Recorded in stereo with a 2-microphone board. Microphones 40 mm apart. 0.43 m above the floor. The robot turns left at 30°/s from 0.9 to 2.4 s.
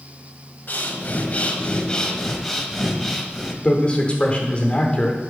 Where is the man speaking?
25° left (ahead or behind), 0.9 m.